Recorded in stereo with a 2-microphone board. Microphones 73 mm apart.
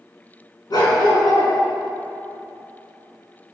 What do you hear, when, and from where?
0.7 s a dog barking: 65° left (ahead or behind), 4 m